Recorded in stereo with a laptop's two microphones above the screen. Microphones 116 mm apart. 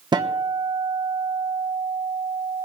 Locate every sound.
0.1 s a guitar: 40° right (ahead or behind), 1.1 m